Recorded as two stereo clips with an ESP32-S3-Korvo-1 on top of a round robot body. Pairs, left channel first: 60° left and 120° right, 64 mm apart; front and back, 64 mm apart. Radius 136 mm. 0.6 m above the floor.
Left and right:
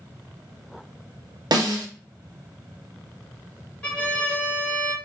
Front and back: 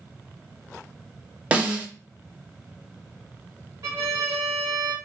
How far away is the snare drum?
About 1.2 m.